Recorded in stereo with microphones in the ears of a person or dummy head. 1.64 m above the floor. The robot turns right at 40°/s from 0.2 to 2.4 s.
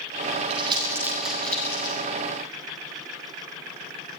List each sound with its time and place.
0.5 s crumpling: 30° right (ahead or behind), 9.5 m; by 2.0 s 30° left (ahead or behind), 9.5 m